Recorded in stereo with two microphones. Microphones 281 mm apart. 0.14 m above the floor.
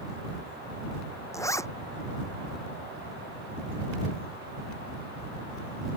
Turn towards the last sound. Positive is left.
turn(degrees=10)  # may be behind; listen again after turning